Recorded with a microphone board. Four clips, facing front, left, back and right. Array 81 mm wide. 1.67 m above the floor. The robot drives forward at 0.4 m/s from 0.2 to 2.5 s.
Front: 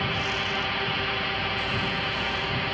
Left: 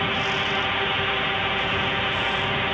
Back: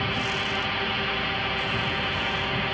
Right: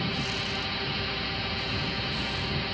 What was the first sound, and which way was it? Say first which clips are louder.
A drone: left 7 dB, even; 90° left.